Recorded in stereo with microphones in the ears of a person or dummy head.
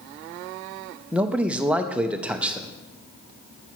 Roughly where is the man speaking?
Centre.